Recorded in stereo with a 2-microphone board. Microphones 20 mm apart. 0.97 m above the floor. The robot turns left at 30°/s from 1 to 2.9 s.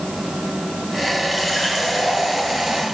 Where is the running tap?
10° right, 7 m; by 2.8 s 55° right, 7 m.